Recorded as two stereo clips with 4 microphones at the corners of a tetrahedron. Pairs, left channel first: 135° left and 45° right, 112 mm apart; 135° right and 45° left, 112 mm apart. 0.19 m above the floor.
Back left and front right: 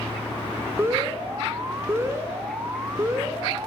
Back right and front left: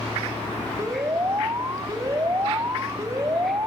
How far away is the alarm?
About 1.8 m.